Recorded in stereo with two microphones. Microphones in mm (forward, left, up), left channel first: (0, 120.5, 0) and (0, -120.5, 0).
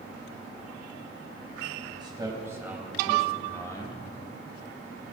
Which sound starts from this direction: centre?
A man speaking, at 1.9 s.